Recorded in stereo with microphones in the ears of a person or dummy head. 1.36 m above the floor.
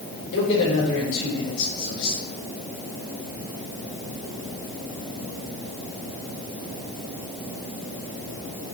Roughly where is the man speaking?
Left.